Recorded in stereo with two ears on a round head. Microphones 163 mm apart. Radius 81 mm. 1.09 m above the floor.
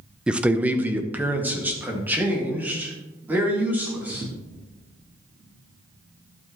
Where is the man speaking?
5° right (ahead or behind), 0.5 m; by 4.2 s 10° right (ahead or behind), 4 m.